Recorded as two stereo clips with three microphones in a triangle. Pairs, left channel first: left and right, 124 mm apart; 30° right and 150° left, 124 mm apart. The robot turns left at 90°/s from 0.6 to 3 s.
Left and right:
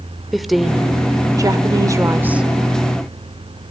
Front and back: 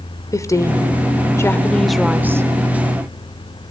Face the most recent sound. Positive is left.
turn(degrees=145)